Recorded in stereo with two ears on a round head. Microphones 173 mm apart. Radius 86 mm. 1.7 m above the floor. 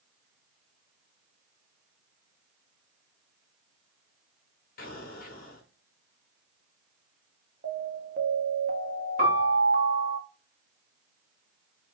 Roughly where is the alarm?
Right.